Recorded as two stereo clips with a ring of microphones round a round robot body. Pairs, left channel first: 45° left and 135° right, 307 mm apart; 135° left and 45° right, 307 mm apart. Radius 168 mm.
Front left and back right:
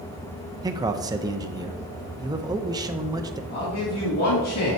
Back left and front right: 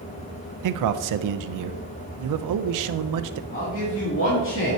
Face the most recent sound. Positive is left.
turn(degrees=85)